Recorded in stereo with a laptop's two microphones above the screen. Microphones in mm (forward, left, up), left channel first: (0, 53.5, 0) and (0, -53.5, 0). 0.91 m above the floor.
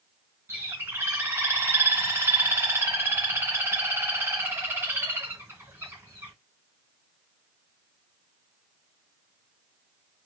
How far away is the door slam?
No door slam in this recording.